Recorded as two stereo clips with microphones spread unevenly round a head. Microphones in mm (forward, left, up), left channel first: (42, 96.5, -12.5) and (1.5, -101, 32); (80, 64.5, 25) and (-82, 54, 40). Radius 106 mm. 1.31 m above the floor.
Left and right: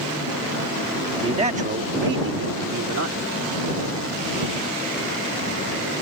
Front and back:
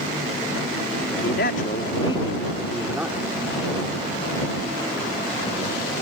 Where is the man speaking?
35° right; by 3.3 s 100° right.